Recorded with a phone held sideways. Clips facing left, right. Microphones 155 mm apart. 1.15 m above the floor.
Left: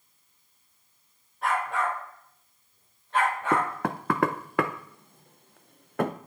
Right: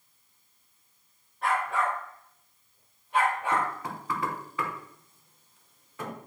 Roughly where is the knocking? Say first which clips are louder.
Left 3 dB; left.